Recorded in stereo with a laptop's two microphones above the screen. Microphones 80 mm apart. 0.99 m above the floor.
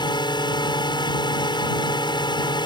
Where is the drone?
70° left (ahead or behind).